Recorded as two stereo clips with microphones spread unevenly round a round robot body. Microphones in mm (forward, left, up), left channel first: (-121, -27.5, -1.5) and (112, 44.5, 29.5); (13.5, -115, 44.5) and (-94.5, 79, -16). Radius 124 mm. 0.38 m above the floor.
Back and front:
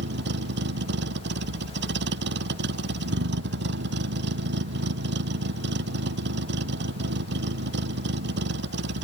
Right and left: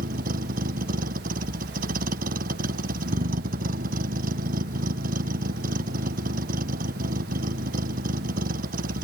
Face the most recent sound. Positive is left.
turn(degrees=60)